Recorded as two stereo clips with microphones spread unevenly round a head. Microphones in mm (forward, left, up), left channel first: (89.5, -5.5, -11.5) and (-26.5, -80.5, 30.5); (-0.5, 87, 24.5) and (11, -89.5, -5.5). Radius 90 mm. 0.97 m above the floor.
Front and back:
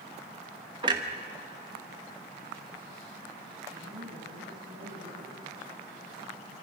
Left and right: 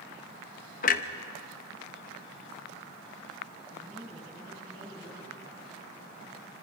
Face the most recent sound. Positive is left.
turn(degrees=-165)